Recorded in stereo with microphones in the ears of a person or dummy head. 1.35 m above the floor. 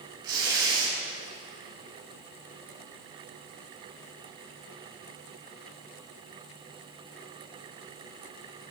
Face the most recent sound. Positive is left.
turn(degrees=-20)  # may be behind; listen again after turning